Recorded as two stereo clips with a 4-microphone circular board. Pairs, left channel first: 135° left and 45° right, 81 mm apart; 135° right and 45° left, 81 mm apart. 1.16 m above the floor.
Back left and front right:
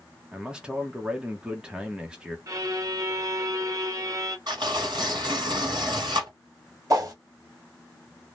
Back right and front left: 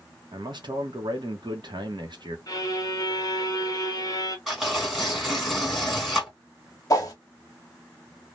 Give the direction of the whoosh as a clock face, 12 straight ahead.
3 o'clock.